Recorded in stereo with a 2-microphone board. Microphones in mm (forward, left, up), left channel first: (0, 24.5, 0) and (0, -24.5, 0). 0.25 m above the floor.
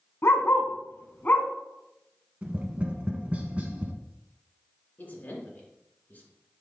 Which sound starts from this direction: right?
Tapping, at 2.4 s.